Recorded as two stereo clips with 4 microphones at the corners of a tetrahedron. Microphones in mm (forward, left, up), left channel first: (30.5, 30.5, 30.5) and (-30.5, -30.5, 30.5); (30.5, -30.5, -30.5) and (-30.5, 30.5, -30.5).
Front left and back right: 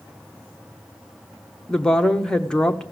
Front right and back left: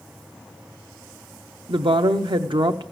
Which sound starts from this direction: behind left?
A woman speaking, at 1.7 s.